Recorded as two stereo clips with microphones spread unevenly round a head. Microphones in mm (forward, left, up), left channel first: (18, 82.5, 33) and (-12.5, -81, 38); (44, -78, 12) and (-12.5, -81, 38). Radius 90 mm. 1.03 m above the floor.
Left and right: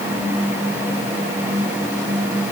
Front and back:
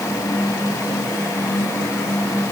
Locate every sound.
Only background noise.